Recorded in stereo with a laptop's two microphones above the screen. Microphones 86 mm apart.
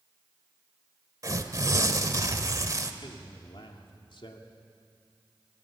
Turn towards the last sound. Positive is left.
turn(degrees=70)  # may be behind; listen again after turning